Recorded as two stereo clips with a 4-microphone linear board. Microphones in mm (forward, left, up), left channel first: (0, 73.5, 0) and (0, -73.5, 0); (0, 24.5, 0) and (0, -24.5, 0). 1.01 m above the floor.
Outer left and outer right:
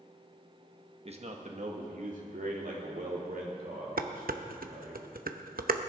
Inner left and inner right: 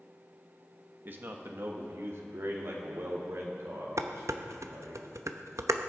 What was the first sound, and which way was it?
A man speaking, 45° right (ahead or behind).